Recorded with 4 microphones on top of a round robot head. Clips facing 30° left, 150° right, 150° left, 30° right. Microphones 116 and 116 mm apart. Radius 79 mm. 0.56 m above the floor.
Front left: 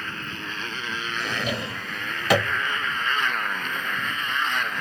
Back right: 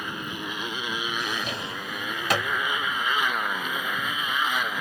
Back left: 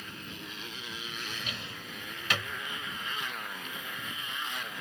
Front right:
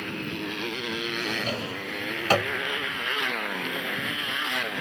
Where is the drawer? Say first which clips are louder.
Front left 3 dB, front right 12 dB; 25° left.